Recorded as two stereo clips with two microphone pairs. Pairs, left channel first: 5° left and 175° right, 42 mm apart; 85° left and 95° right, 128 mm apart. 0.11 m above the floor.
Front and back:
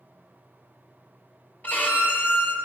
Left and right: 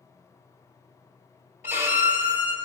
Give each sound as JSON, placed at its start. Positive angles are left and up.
{"t": 1.6, "sound": "a violin", "azimuth_deg": -25, "distance_m": 1.3}